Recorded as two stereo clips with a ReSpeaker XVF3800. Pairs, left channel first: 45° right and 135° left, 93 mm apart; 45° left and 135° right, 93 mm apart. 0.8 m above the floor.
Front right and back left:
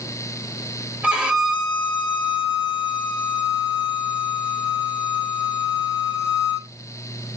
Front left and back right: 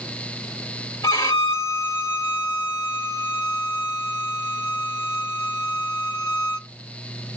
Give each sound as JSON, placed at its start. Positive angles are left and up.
{"t": 1.0, "sound": "a violin", "azimuth_deg": 65, "distance_m": 2.0}